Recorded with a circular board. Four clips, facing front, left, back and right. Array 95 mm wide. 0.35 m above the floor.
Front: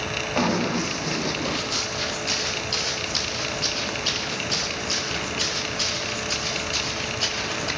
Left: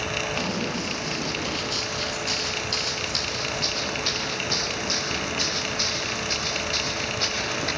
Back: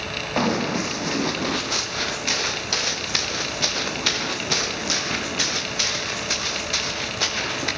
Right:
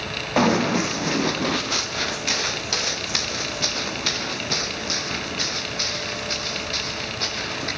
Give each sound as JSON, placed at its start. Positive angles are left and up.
{"t": 0.4, "sound": "running footsteps", "azimuth_deg": -105, "distance_m": 4.0}